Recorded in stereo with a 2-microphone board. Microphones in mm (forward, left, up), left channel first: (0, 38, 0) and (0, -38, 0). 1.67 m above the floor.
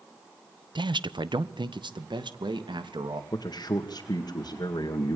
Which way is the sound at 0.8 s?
80° right.